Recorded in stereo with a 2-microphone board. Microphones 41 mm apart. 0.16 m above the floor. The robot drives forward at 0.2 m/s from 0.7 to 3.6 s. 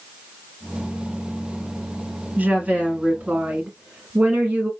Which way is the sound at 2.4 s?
35° right (ahead or behind).